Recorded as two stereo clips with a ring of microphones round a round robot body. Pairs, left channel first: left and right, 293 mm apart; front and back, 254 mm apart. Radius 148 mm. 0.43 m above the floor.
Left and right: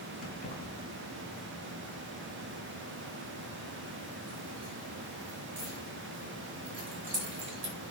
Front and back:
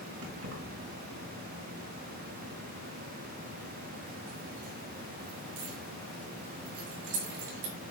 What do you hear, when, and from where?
0.2 s keys jangling: 150° left, 3.5 m; by 7.7 s 160° right, 6 m